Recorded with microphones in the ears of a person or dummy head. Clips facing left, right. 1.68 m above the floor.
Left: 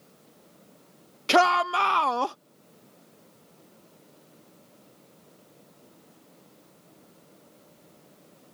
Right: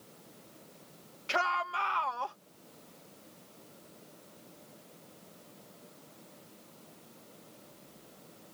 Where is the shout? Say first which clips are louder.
Left 13 dB; 70° left (ahead or behind).